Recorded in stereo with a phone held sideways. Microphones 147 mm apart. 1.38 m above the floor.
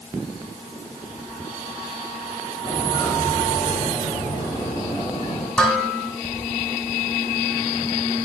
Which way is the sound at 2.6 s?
30° left (ahead or behind).